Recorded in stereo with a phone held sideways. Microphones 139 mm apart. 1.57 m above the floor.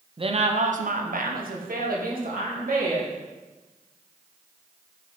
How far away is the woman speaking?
About 0.7 m.